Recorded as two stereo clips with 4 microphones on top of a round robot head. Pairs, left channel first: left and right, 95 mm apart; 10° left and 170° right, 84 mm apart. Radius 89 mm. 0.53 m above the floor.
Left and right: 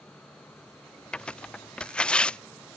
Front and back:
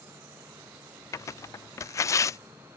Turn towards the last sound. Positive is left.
turn(degrees=15)